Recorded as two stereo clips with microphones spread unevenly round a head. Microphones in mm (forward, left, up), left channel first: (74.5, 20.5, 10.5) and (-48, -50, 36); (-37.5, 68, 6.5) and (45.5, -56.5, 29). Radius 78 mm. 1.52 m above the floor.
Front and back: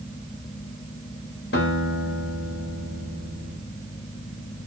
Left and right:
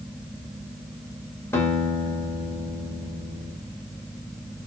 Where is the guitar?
50° left, 2.5 m.